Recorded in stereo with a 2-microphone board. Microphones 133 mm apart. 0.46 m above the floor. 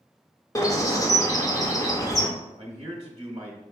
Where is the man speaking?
40° right (ahead or behind), 0.9 m.